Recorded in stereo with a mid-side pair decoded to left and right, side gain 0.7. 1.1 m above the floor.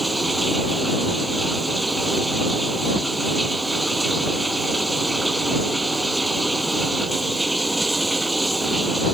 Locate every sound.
0.0 s running water: 5° right